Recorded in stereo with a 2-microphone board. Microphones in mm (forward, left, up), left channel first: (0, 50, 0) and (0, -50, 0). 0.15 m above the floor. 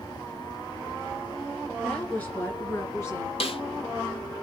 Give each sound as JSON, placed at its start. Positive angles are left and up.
{"t": 1.8, "sound": "a woman speaking", "side_deg": 15, "distance_m": 2.5}
{"t": 3.4, "sound": "a snare drum", "side_deg": 70, "distance_m": 0.6}